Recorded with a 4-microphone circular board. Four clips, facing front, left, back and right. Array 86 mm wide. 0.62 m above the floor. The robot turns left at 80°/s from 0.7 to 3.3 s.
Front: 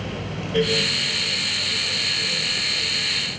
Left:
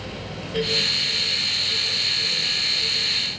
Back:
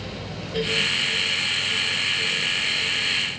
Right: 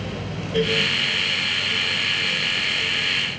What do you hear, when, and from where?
Only background noise.